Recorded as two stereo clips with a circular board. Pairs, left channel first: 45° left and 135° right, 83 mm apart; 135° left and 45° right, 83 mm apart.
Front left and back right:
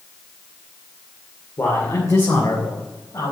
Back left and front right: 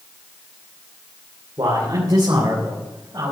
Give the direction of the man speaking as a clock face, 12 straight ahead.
12 o'clock.